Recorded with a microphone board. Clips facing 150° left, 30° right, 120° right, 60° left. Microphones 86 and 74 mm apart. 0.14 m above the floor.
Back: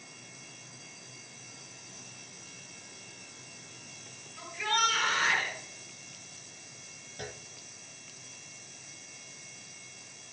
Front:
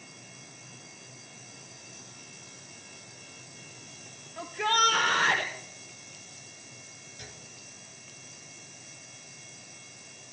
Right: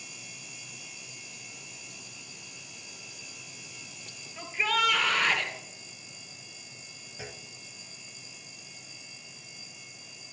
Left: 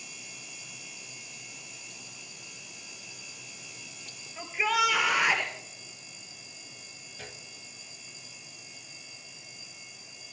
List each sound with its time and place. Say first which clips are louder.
4.4 s a shout: front 4 dB, left 1 dB; 20° right, 2.5 m; by 5.5 s 15° right, 4.5 m
7.2 s a clunk: back 8 dB, right 3 dB; 165° left, 1.2 m